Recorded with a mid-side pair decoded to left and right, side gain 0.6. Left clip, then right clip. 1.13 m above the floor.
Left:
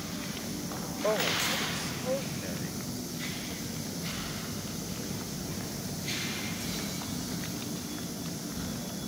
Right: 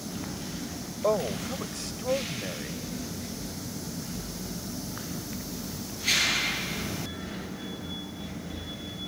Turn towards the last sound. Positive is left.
turn(degrees=-20)